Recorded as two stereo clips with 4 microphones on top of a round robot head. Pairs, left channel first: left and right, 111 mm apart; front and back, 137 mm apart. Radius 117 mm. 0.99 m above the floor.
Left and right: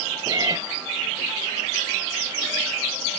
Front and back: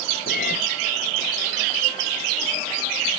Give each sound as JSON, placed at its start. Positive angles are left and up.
{"t": 0.3, "sound": "a cat meowing", "azimuth_deg": -30}